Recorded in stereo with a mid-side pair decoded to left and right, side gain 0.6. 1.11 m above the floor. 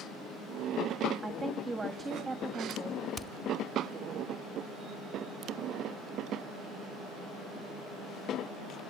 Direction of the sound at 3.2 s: 25° left.